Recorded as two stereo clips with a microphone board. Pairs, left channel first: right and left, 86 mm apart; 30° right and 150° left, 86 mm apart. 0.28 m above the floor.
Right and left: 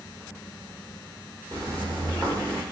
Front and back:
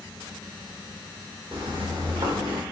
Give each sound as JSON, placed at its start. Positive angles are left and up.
{"t": 1.5, "sound": "footsteps", "azimuth_deg": 135, "distance_m": 2.0}